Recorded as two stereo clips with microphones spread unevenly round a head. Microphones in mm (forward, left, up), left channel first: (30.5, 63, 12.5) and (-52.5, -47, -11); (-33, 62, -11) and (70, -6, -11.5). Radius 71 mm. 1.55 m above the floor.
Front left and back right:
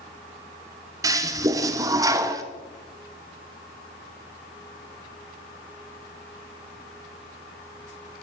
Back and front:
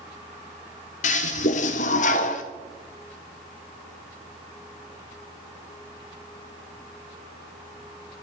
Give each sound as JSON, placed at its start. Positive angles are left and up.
{"t": 1.0, "sound": "a toilet flushing", "azimuth_deg": 165, "distance_m": 0.7}